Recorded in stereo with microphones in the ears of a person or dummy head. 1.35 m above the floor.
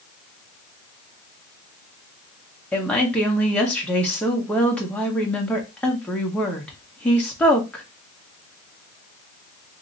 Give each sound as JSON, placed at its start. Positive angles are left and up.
{"t": 2.7, "sound": "a woman speaking", "side_deg": 10, "distance_m": 1.1}